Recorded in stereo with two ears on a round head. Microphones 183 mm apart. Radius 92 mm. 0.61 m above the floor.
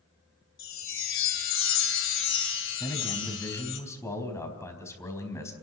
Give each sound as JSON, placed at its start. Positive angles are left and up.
{"t": 0.6, "sound": "a chime", "side_deg": 65, "distance_m": 2.5}
{"t": 2.8, "sound": "a man speaking", "side_deg": 15, "distance_m": 4.0}